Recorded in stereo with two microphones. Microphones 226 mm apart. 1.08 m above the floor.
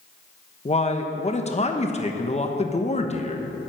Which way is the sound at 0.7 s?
30° left (ahead or behind).